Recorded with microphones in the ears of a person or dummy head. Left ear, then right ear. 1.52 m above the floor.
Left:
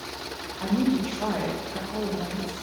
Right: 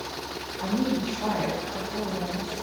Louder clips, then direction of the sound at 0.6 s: Left 2 dB; 30° left (ahead or behind).